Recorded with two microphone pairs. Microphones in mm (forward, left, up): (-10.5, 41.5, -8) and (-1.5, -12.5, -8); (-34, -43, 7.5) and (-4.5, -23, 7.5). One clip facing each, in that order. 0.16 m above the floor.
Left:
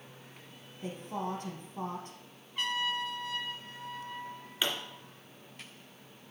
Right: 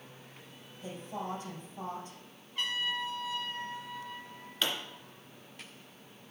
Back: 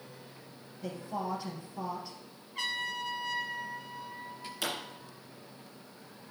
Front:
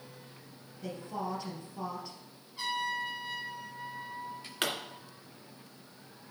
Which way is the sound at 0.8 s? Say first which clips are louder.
Left 2 dB, back 1 dB; 130° left.